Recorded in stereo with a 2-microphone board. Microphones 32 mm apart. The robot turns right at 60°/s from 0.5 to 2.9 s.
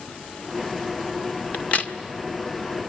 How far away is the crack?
About 1.8 m.